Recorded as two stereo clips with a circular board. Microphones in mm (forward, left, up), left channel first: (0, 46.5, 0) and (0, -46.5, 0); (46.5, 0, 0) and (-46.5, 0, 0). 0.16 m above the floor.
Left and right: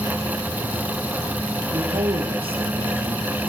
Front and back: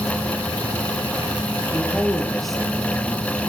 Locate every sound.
1.7 s a woman speaking: 85° right, 5 m